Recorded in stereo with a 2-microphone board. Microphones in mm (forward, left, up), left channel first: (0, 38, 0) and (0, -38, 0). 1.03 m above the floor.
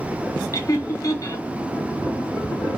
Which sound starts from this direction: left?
Laughter, at 0.5 s.